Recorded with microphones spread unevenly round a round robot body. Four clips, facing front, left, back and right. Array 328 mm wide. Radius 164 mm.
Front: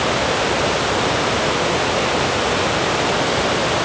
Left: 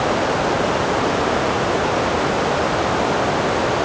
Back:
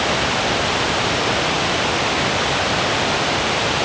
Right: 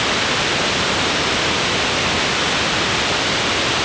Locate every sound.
Only background noise.